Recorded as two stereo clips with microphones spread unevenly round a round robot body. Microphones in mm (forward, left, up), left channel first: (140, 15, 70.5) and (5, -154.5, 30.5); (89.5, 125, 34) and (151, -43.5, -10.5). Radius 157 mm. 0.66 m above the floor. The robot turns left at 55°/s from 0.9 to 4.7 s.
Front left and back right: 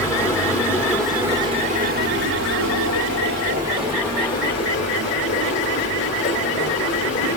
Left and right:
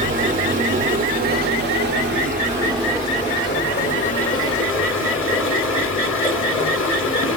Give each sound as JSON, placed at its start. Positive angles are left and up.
{"t": 0.0, "sound": "running water", "azimuth_deg": -35, "distance_m": 2.0}